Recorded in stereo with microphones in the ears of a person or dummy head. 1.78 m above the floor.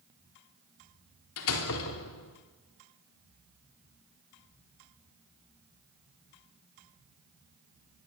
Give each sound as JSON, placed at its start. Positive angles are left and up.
{"t": 1.4, "sound": "a door slam", "side_deg": 75, "distance_m": 4.0}